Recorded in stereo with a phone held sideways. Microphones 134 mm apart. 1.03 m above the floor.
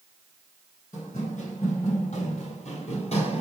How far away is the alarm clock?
No alarm clock in this recording.